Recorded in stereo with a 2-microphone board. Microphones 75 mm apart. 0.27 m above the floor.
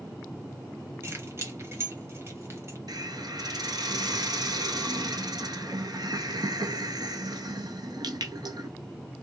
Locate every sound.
1.0 s keys jangling: 35° right (ahead or behind), 0.9 m
2.9 s a hiss: 65° right (ahead or behind), 0.8 m